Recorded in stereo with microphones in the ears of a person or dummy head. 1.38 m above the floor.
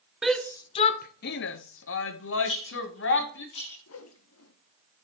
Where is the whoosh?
75° left (ahead or behind), 1.2 m.